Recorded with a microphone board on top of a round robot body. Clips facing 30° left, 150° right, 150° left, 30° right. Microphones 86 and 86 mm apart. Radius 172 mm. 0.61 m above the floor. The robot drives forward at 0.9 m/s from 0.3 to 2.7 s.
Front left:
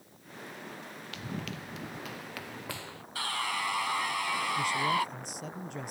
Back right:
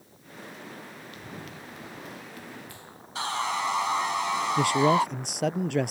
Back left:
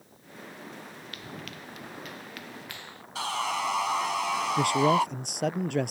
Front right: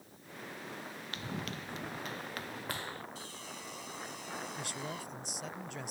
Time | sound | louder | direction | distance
1.1 | running footsteps | front left 5 dB, front right 3 dB | 35° left | ?
3.1 | sawing | back right 5 dB, back left 17 dB | 145° left | ?
4.6 | a man speaking | back right 9 dB, back left 19 dB | 175° right | ?